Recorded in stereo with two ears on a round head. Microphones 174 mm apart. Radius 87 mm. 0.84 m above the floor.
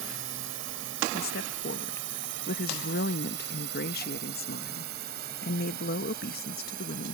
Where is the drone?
75° right (ahead or behind); by 7.2 s 45° right (ahead or behind).